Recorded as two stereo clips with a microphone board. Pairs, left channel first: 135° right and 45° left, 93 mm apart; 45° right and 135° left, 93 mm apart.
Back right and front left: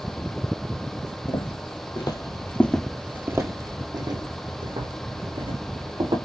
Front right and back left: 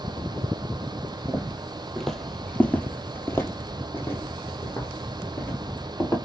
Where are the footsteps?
140° right, 1.6 m; by 6.2 s 25° left, 3.5 m.